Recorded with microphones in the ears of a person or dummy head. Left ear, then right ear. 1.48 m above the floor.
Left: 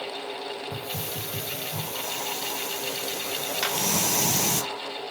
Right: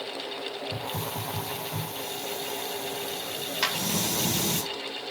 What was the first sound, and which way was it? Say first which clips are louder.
A hiss: even; 35° left (ahead or behind).